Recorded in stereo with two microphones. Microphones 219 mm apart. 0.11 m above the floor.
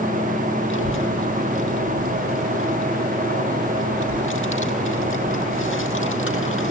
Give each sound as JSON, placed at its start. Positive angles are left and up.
{"t": 0.7, "sound": "a child speaking", "side_deg": 70, "distance_m": 1.9}